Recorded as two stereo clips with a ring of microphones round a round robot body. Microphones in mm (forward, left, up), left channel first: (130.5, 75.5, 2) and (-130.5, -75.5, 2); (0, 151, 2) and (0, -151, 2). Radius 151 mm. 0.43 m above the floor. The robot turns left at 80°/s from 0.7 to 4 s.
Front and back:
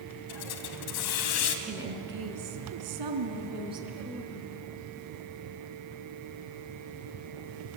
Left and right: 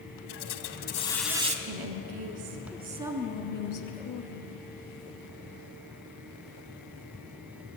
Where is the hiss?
45° left, 2.5 m; by 1.6 s 25° right, 2.5 m.